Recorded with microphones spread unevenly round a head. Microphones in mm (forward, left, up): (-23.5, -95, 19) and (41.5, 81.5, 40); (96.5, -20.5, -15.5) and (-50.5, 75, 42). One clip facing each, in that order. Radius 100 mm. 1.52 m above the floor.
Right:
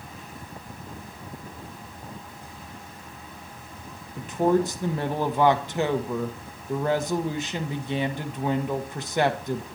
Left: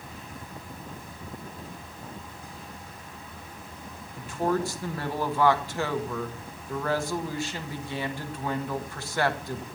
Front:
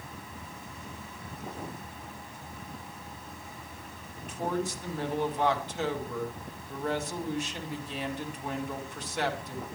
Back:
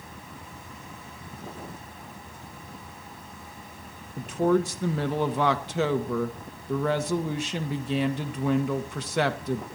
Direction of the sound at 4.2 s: 175° left.